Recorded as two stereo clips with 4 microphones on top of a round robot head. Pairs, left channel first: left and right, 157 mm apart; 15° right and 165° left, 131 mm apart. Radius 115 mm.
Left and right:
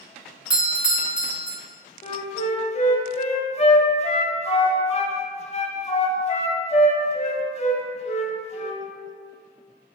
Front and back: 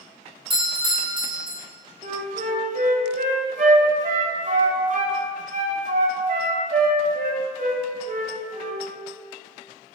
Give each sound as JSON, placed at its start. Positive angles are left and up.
{"t": 0.5, "sound": "a doorbell", "azimuth_deg": -170, "distance_m": 1.4}
{"t": 2.0, "sound": "a flute", "azimuth_deg": 140, "distance_m": 0.8}